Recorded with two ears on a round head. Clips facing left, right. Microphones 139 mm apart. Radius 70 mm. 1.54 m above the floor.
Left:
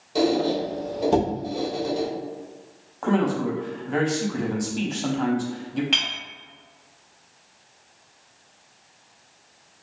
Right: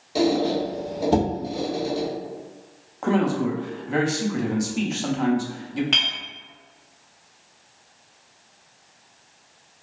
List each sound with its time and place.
0.1 s a squeak: 10° right (ahead or behind), 0.7 m
3.0 s a man speaking: 5° right (ahead or behind), 0.6 m
5.9 s a clink: 5° left (ahead or behind), 1.0 m